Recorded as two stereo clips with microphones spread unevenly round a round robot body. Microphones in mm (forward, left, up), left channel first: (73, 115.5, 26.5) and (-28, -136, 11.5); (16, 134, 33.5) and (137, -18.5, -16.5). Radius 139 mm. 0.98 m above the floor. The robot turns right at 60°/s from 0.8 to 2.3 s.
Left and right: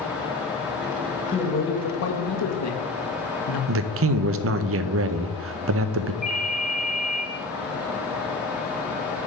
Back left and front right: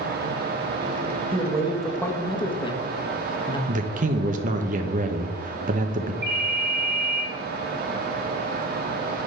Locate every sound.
1.3 s a man speaking: 5° right, 1.3 m; by 3.6 s 55° left, 1.3 m
3.7 s a man speaking: 85° right, 0.6 m
6.2 s a ringtone: 20° right, 2.5 m